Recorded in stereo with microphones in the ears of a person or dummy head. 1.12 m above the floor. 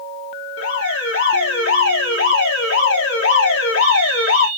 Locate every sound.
0.6 s an alarm: 70° left (ahead or behind), 1.3 m